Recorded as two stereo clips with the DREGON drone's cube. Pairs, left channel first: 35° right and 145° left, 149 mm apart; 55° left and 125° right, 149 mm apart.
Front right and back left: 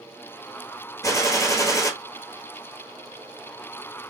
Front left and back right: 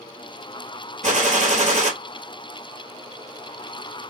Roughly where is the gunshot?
Right.